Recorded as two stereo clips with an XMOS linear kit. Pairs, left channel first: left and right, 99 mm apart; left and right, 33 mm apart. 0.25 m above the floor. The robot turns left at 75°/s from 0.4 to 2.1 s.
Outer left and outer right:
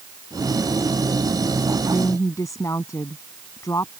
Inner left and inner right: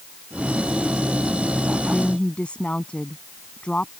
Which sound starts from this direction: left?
A woman speaking, at 1.9 s.